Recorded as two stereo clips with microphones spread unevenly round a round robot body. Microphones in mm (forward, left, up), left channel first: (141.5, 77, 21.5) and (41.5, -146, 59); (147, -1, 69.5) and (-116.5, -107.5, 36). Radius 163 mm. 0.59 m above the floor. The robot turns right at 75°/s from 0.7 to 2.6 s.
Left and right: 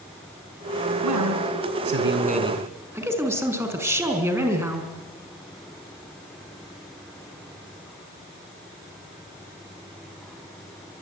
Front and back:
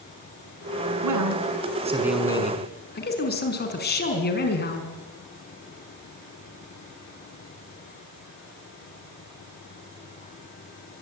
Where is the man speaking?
150° right, 5.5 m; by 4.9 s 35° right, 5.5 m.